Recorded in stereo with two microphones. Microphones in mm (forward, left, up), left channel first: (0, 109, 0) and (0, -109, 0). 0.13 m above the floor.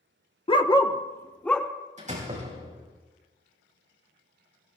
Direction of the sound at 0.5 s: 25° left (ahead or behind).